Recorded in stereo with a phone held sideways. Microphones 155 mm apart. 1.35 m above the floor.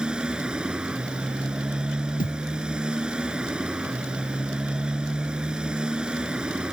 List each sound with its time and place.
0.0 s a motorcycle: 5° right (ahead or behind)
2.2 s a thud: 65° left (ahead or behind)